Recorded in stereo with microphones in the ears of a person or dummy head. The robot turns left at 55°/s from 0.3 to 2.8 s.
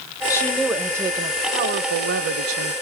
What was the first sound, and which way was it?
A woman speaking, 15° left.